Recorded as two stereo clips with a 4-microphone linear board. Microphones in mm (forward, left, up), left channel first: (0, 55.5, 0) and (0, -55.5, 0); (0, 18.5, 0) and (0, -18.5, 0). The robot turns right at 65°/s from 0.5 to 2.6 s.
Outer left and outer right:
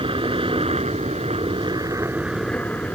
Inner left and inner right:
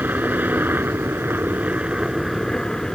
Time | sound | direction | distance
0.0 | a helicopter | 125° right | ?